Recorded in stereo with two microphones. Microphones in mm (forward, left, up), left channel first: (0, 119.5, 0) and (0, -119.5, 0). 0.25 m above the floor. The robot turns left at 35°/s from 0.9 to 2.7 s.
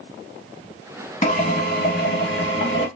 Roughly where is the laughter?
No laughter in this recording.